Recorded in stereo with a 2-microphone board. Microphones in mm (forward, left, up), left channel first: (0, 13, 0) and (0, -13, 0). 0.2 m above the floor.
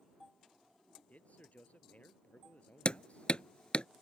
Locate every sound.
1.1 s a man speaking: 65° left (ahead or behind)
2.9 s hammering: 40° left (ahead or behind)